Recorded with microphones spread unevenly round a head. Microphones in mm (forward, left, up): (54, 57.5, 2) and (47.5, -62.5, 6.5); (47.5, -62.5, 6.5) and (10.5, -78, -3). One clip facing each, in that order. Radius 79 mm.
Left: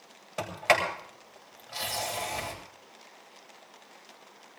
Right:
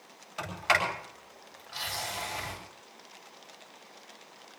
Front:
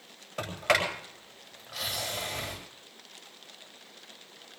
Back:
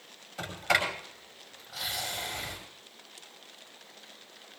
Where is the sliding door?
55° left, 7.5 m.